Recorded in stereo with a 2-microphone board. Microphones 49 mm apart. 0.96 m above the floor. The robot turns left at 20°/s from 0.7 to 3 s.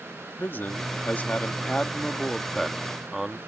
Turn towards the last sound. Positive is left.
turn(degrees=-5)